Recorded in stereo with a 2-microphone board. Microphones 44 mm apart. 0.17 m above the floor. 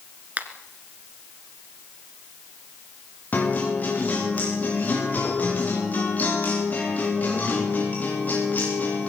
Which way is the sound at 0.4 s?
35° right (ahead or behind).